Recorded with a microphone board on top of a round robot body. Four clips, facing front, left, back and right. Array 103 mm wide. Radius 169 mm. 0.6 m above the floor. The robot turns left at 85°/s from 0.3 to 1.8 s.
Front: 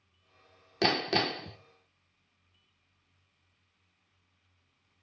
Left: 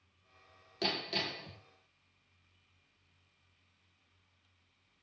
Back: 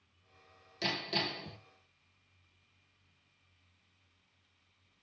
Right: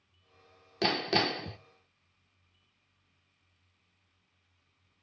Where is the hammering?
20° right, 0.6 m; by 1.6 s 85° right, 0.6 m.